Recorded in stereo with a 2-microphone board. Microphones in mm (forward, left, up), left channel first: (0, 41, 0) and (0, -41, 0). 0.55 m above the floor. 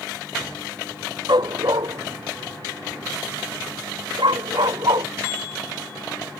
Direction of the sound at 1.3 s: 60° right (ahead or behind).